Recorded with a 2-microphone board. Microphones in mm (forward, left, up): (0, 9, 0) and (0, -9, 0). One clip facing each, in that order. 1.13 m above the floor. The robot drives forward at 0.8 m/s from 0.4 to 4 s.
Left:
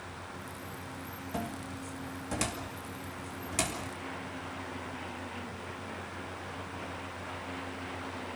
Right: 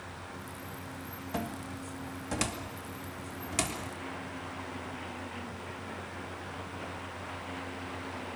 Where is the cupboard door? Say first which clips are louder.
Right 1 dB; 15° right (ahead or behind), 1.5 m; by 3.8 s 5° right (ahead or behind), 3.5 m.